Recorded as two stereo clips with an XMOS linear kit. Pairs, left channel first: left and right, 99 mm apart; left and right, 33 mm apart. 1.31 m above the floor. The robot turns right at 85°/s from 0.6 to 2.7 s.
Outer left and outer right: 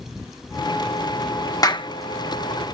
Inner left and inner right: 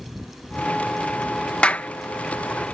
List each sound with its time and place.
1.6 s a clap: 40° left (ahead or behind); by 1.9 s 60° left (ahead or behind)